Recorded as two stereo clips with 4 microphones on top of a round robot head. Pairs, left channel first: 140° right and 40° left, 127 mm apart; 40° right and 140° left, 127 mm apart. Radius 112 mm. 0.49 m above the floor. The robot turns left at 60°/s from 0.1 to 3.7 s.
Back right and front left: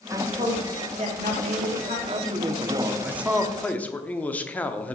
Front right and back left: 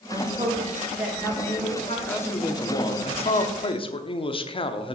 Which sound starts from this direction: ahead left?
A man speaking, at 2.1 s.